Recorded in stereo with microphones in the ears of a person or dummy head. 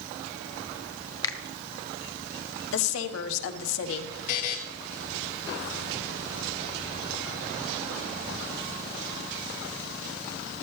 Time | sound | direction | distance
1.2 | a finger snap | 20° left (ahead or behind) | 0.8 m
2.7 | a woman speaking | 75° left (ahead or behind) | 1.2 m
4.3 | a buzzer | 40° left (ahead or behind) | 0.9 m